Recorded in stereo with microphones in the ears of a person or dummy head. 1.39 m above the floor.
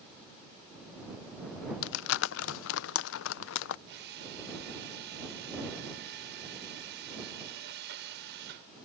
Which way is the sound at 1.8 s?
65° left (ahead or behind).